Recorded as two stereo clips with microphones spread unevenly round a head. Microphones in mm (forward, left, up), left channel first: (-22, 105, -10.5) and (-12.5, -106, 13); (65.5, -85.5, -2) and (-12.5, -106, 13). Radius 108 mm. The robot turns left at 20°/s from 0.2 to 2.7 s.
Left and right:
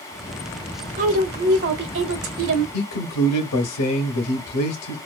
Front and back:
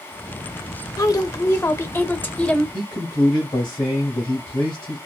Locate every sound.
1.0 s a woman speaking: 30° right, 0.8 m; by 2.6 s 60° right, 0.8 m
2.7 s a man speaking: 75° left, 0.8 m